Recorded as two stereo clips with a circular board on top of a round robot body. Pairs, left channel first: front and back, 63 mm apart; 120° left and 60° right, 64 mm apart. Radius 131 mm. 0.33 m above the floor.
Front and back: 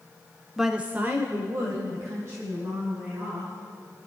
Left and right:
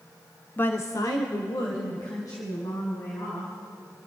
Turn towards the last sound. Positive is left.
turn(degrees=145)